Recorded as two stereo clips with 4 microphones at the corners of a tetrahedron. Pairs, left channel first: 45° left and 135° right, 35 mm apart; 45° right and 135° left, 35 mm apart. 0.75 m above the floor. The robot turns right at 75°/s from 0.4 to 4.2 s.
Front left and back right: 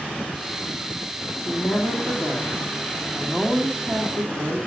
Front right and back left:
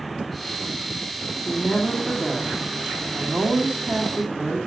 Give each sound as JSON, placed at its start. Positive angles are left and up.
{"t": 1.4, "sound": "a woman speaking", "azimuth_deg": -25, "distance_m": 2.0}